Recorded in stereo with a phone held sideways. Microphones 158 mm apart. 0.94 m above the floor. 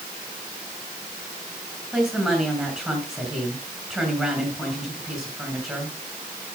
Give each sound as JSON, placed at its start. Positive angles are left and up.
{"t": 1.9, "sound": "a woman speaking", "side_deg": 0, "distance_m": 6.0}